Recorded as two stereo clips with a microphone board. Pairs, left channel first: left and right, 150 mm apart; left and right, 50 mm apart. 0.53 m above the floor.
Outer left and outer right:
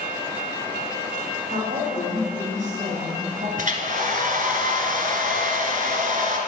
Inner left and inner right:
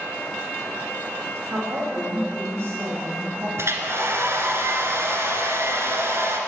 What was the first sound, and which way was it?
A woman speaking, 75° right (ahead or behind).